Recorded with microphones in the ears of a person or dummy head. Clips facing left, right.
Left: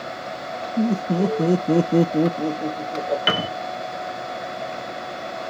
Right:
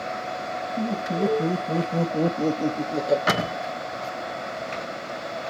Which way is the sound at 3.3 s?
35° left (ahead or behind).